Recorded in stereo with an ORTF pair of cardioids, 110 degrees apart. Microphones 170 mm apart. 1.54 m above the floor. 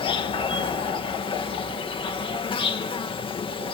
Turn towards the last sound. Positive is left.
turn(degrees=30)